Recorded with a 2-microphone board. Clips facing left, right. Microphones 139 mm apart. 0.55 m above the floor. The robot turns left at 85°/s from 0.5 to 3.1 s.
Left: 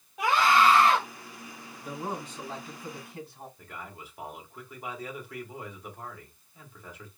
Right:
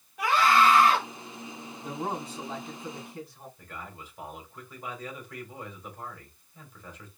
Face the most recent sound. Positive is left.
turn(degrees=10)  # may be behind; listen again after turning